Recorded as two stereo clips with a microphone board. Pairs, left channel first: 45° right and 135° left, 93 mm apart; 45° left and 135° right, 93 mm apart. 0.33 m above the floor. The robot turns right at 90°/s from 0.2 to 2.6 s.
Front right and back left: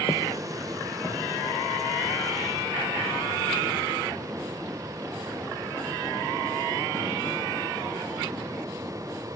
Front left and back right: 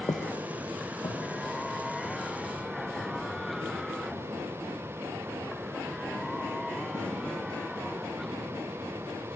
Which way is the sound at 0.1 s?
10° left.